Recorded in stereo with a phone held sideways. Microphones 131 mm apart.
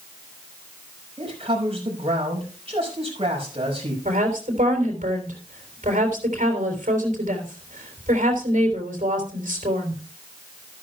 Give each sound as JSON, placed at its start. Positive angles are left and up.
{"t": 1.2, "sound": "a man speaking", "side_deg": -45, "distance_m": 5.0}
{"t": 4.0, "sound": "a woman speaking", "side_deg": -70, "distance_m": 3.5}